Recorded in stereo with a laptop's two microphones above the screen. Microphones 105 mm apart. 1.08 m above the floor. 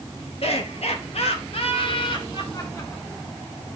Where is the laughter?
70° left (ahead or behind), 2 m; by 3.3 s 20° left (ahead or behind), 2.5 m.